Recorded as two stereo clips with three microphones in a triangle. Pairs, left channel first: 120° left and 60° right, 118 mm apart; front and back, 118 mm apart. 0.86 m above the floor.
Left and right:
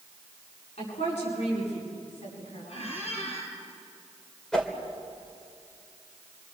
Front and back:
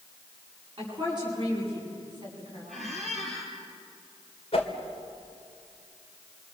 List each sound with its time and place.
0.8 s a woman speaking: 125° left, 10 m; by 2.9 s 130° left, 8 m
2.7 s a squeak: 90° left, 5 m
4.5 s a whoosh: 35° left, 2.5 m